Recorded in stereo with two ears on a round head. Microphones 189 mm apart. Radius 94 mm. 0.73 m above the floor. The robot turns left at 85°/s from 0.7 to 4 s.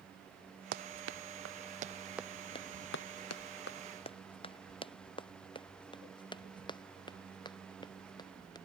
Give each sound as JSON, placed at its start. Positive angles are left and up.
{"t": 0.7, "sound": "running footsteps", "side_deg": -45}